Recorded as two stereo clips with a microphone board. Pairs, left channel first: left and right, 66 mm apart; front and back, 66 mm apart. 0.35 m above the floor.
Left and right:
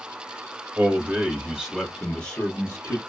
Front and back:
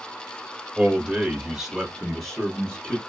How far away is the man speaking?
About 1.0 m.